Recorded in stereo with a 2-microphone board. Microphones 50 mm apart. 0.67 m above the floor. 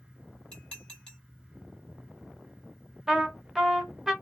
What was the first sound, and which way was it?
Dishes clattering, 15° left (ahead or behind).